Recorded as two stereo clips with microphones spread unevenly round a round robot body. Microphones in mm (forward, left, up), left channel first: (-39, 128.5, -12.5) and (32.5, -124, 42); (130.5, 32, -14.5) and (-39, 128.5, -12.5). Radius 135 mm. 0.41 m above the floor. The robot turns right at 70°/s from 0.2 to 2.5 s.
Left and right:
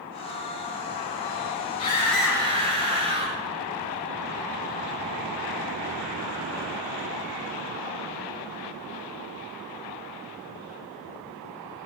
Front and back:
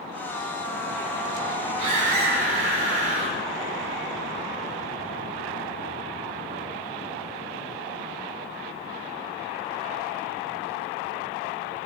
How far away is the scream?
About 2 m.